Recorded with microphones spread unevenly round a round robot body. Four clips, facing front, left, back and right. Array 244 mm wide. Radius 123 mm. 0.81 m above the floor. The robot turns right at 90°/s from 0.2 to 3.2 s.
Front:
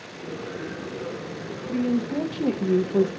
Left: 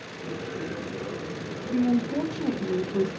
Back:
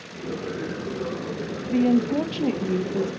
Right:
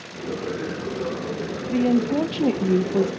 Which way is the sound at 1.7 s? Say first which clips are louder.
Right 4 dB, back 4 dB; 165° right.